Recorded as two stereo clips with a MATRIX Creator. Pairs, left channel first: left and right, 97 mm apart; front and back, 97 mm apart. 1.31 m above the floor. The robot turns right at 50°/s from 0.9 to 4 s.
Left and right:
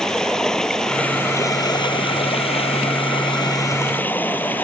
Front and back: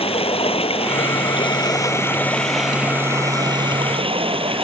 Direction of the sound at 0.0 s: 5° left.